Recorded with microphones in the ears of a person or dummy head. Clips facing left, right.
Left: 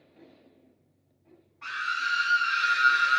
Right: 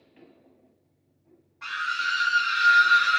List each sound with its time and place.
1.6 s a scream: 70° right (ahead or behind), 2.5 m; by 3.2 s 55° right (ahead or behind), 2.0 m